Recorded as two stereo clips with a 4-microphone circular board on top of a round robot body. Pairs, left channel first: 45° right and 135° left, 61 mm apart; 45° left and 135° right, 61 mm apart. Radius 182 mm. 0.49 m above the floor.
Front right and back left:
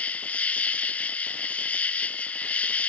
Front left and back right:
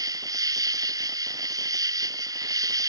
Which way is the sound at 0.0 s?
115° right.